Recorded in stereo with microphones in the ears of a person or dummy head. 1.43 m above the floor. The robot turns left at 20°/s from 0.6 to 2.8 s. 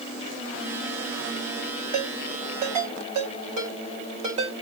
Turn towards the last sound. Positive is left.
turn(degrees=-40)  # may be behind; listen again after turning